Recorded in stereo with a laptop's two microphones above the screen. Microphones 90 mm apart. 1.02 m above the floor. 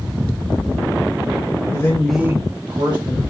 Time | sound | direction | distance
1.7 | a man speaking | 35° left (ahead or behind) | 0.9 m